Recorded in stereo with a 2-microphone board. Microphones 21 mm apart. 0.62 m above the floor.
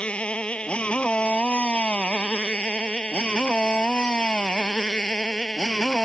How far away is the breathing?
I don't hear breathing.